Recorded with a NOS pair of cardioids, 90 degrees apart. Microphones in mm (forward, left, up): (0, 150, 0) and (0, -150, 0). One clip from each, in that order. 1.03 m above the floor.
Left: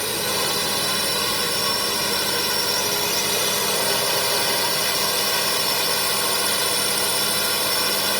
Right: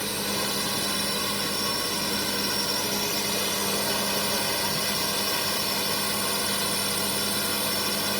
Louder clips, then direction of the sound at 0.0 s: Left 5 dB; 45° left.